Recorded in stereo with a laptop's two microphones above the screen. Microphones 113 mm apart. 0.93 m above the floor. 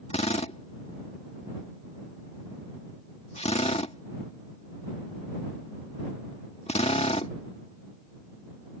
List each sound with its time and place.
0.1 s a drill: 70° left (ahead or behind)